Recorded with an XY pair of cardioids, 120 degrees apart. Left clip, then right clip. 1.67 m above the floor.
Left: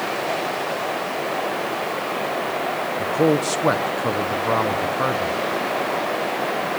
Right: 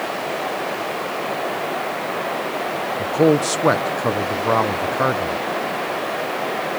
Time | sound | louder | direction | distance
3.0 | a man speaking | right 3 dB | 20° right | 1.2 m